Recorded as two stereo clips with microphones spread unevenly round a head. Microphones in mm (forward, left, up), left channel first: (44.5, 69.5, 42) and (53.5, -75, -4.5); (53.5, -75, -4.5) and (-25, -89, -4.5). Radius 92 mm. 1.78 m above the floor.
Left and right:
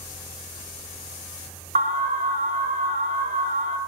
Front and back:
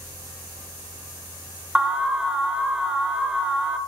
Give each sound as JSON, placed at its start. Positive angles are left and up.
{"t": 1.8, "sound": "an alarm", "azimuth_deg": -90, "distance_m": 1.4}